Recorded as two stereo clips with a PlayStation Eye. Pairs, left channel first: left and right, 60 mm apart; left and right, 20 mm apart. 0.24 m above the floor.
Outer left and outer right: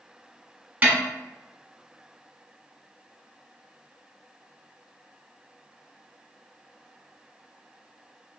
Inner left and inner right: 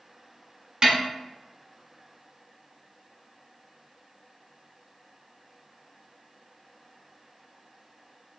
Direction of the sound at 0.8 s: 25° right (ahead or behind).